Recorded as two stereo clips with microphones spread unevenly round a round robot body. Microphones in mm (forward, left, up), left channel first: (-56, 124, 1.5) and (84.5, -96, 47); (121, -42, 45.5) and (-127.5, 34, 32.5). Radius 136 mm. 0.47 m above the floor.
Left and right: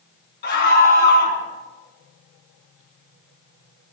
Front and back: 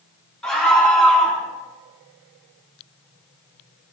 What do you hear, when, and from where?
0.4 s a scream: 70° left, 3.5 m